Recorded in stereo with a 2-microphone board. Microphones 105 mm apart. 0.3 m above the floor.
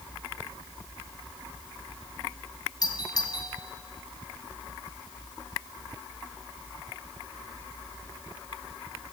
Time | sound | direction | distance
2.8 | a doorbell | 40° left (ahead or behind) | 3.5 m